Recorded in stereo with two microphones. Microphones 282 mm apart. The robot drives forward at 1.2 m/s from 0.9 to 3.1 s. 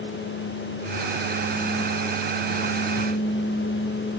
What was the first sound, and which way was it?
Only background noise.